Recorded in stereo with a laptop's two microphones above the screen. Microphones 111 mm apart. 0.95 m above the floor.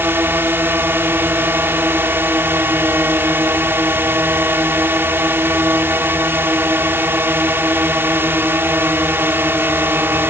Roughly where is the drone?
Centre.